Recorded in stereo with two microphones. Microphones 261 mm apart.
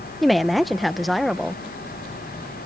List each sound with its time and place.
0.2 s a woman speaking: centre (ahead or behind)